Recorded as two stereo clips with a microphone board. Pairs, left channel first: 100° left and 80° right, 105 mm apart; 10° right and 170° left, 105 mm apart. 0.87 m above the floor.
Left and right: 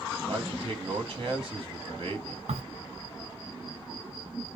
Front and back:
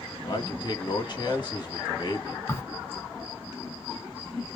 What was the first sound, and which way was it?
A man speaking, 50° right.